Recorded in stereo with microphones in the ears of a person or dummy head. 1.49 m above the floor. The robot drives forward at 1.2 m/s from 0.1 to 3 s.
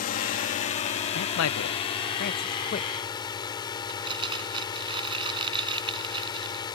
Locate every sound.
0.0 s a drone: 50° left (ahead or behind); by 6.8 s 25° left (ahead or behind)
1.1 s a man speaking: 70° left (ahead or behind); by 2.9 s 40° left (ahead or behind)
3.9 s crumpling: 30° right (ahead or behind)